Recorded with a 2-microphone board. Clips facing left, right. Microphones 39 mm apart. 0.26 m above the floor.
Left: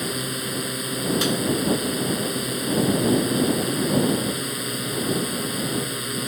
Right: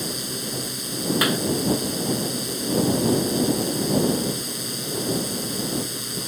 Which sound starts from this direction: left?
A drone, at 0.0 s.